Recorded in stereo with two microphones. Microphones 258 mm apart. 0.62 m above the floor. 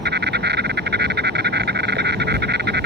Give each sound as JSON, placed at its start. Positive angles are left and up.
{"t": 0.0, "sound": "an insect", "side_deg": -45}